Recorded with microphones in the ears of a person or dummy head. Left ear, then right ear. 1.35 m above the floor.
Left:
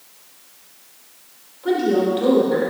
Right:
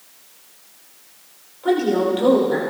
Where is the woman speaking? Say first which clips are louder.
Even; 20° right (ahead or behind), 4.5 m.